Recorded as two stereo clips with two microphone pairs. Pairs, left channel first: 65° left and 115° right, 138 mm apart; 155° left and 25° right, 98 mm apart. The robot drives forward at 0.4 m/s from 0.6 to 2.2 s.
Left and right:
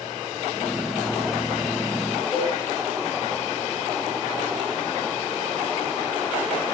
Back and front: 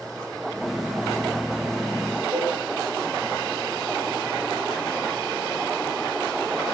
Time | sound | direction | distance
2.3 | a cowbell | 10° left | 10 m